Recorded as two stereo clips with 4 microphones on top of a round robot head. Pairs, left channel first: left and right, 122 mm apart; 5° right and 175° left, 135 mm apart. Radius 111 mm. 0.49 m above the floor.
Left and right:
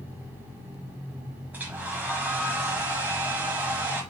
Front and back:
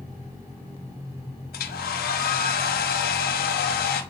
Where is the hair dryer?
10° right, 0.8 m.